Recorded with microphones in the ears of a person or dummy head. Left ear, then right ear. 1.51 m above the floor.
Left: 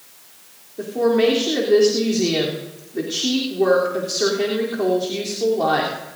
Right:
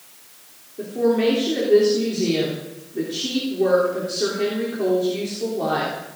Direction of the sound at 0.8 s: 35° left (ahead or behind).